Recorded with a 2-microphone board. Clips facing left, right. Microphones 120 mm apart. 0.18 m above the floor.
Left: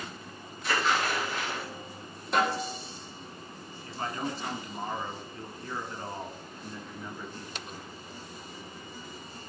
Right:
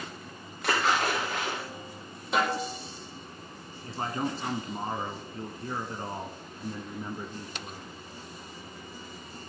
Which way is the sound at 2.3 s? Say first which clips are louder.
Even; 5° right (ahead or behind).